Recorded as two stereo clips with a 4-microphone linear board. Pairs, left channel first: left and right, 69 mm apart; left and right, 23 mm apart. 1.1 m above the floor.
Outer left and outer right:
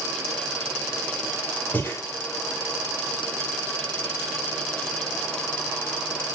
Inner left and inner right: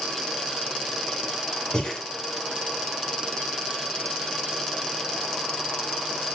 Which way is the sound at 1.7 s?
25° left (ahead or behind).